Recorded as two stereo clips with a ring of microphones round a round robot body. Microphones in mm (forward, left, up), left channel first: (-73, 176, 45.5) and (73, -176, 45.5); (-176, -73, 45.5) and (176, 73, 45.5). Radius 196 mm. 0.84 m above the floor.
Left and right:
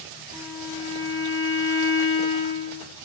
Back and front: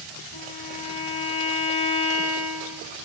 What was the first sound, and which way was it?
A violin, 155° right.